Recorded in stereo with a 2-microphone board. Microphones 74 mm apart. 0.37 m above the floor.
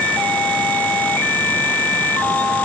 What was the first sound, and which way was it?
Only background noise.